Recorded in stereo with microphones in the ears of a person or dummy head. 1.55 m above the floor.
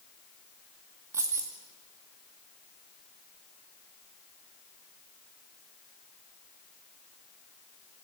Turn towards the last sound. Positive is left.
turn(degrees=-10)  # may be behind; listen again after turning